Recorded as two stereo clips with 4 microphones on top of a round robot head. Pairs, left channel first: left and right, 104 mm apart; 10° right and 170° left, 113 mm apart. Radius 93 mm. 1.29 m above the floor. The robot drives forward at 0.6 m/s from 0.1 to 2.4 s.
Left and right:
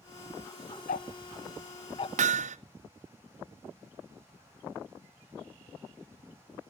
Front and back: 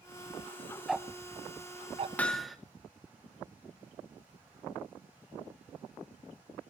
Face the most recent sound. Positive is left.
turn(degrees=-95)